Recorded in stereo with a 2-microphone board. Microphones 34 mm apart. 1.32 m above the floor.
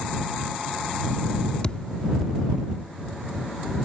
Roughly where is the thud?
Left.